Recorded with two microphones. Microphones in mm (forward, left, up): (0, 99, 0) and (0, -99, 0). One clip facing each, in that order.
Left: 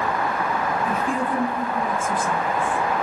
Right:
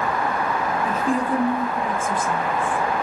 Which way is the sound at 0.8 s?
35° right (ahead or behind).